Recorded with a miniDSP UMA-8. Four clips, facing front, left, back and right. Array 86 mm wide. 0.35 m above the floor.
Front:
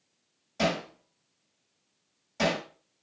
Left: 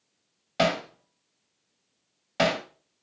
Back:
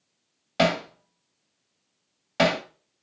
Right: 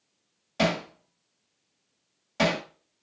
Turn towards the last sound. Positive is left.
turn(degrees=155)